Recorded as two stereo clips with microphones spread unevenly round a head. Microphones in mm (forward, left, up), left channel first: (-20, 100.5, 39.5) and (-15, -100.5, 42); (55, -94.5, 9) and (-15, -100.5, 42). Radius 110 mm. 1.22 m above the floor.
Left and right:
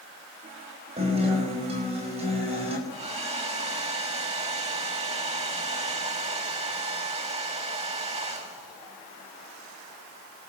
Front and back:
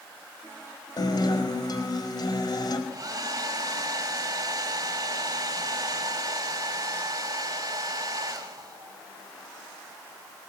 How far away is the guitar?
About 5 m.